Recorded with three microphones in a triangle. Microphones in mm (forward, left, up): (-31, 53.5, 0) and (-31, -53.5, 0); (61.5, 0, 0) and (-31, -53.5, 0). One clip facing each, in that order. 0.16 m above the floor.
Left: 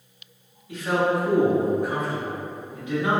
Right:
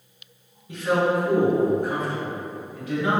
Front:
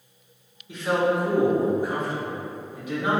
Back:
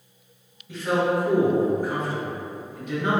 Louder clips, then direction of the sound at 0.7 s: Right 1 dB, even; 45° right.